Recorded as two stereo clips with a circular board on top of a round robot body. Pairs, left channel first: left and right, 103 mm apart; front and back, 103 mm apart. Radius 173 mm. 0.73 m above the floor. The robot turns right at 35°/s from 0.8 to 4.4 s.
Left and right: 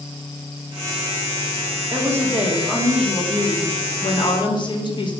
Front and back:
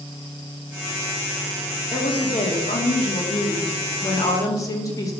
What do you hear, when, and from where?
1.9 s a woman speaking: 35° right, 2.5 m; by 5.1 s 55° left, 2.5 m